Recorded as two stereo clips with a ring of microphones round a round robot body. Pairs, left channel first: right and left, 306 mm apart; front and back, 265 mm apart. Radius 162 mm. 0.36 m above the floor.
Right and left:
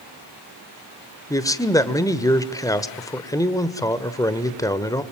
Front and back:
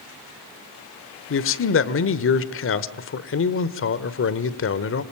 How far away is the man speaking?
About 1.2 m.